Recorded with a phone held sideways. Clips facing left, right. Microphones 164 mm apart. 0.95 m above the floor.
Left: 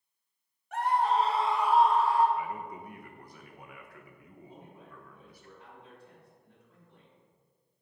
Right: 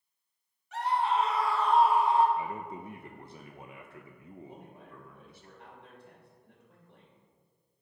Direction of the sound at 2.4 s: 25° right (ahead or behind).